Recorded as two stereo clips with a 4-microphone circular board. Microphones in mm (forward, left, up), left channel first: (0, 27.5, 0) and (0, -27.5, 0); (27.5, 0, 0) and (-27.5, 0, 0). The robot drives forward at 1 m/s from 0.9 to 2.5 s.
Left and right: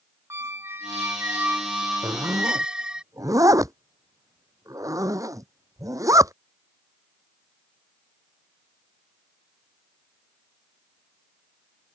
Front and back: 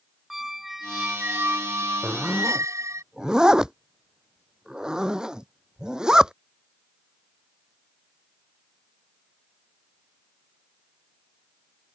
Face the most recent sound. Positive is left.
turn(degrees=-100)